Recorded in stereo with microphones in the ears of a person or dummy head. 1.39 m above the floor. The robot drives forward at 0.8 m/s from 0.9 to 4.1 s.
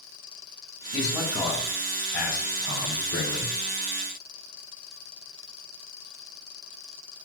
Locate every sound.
0.9 s a man speaking: 75° left (ahead or behind), 6 m; by 3.5 s 60° left (ahead or behind), 7 m